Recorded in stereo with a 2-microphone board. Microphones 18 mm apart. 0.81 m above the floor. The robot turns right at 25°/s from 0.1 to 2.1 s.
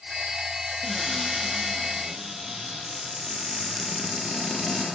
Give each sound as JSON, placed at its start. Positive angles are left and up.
{"t": 0.8, "sound": "a cupboard door", "azimuth_deg": 170, "distance_m": 6.5}